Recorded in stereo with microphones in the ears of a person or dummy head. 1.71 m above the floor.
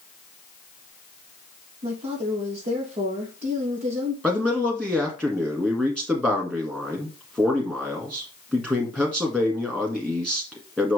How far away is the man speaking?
About 1.8 m.